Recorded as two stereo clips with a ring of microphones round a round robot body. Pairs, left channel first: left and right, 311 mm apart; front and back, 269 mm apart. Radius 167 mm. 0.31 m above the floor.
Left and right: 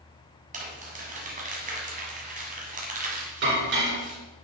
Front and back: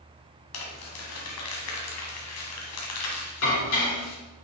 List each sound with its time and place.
0.5 s crumpling: 25° right, 1.5 m
3.4 s dishes clattering: 40° right, 3.5 m